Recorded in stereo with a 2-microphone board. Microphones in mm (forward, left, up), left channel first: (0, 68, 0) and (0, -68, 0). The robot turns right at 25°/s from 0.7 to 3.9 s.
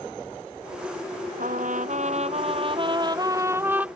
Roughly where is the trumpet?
Right.